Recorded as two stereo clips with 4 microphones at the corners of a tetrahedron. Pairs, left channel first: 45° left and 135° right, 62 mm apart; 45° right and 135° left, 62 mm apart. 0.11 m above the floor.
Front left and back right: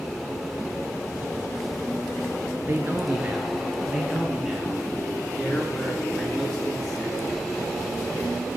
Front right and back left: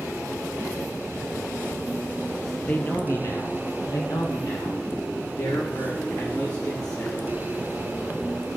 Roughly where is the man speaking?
Right.